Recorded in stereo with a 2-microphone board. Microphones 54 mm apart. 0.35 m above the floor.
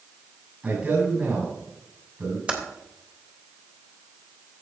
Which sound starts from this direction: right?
A man speaking, at 0.6 s.